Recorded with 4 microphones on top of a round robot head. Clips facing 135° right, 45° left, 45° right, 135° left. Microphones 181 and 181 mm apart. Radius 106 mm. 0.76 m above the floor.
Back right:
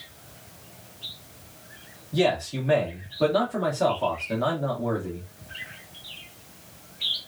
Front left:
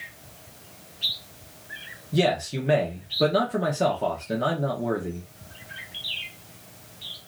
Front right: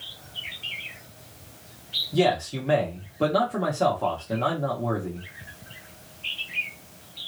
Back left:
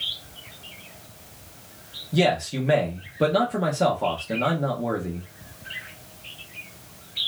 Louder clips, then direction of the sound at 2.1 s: Even, even; 75° left.